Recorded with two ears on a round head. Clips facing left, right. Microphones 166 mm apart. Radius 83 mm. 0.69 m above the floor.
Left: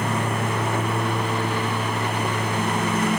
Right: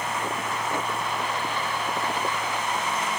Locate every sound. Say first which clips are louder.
0.0 s a lawn mower: left 5 dB; 45° left (ahead or behind)